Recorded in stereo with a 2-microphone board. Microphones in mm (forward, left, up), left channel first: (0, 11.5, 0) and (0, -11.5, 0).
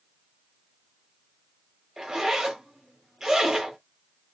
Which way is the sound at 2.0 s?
20° right (ahead or behind).